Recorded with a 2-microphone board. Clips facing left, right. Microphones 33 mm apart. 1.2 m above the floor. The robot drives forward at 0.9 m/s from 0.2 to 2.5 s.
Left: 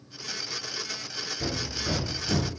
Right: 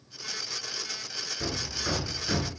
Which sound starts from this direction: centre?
Hammering, at 1.4 s.